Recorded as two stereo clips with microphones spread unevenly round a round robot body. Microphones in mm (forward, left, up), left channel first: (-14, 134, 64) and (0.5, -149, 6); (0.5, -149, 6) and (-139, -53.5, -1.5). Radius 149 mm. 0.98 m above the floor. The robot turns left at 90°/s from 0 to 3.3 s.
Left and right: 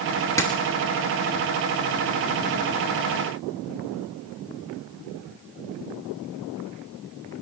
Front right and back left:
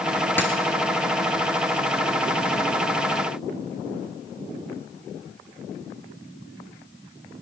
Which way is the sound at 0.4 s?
35° left.